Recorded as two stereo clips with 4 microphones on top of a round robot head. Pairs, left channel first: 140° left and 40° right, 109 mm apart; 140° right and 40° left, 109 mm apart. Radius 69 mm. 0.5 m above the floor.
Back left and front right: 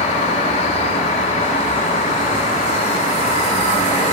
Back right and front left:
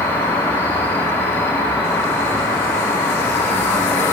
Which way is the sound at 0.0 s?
150° left.